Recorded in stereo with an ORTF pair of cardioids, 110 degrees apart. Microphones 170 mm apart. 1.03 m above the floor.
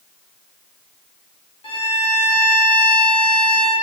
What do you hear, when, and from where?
1.6 s a violin: 35° left, 3.5 m